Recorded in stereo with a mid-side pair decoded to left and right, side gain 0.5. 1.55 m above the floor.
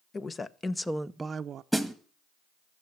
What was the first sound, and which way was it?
A woman speaking, 35° left.